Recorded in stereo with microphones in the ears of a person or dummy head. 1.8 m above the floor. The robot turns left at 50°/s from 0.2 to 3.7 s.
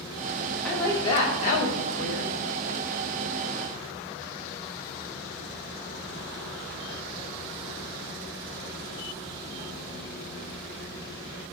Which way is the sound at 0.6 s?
Straight behind.